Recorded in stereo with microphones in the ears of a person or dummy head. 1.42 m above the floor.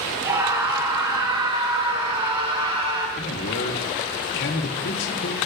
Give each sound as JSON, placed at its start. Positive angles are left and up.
{"t": 0.2, "sound": "a scream", "side_deg": -20, "distance_m": 8.5}
{"t": 3.2, "sound": "a man speaking", "side_deg": 65, "distance_m": 3.0}